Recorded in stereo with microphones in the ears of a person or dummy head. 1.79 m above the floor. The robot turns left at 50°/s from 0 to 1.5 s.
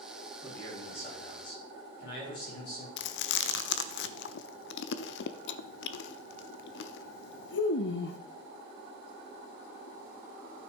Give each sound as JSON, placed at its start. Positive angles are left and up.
{"t": 0.4, "sound": "a man speaking", "azimuth_deg": 170, "distance_m": 5.5}
{"t": 3.0, "sound": "chewing", "side_deg": 75, "distance_m": 0.5}